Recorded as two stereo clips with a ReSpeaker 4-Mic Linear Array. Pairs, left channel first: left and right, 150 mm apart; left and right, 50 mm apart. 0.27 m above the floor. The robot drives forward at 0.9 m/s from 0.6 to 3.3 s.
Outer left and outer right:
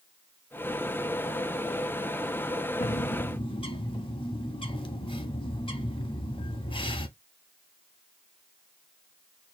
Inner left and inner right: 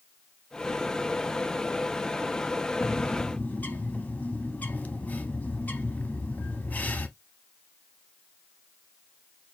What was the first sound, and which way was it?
A bird, 50° left (ahead or behind).